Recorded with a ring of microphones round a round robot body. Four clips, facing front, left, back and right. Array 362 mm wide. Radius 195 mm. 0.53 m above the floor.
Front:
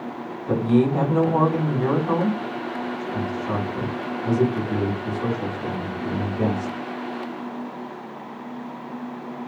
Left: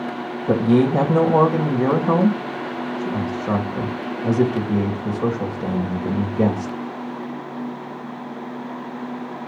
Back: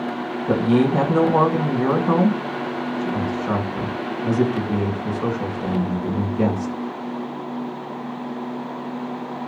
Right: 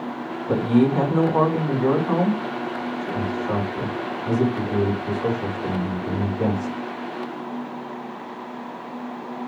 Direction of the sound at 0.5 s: 105° left.